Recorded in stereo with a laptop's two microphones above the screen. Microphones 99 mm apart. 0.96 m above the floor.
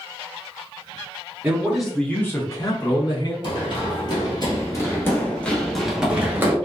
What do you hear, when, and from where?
1.4 s a man speaking: 15° right (ahead or behind), 0.8 m; by 3.3 s 50° left (ahead or behind), 1.2 m
3.4 s running footsteps: 50° left (ahead or behind), 1.7 m; by 6.5 s 25° right (ahead or behind), 1.0 m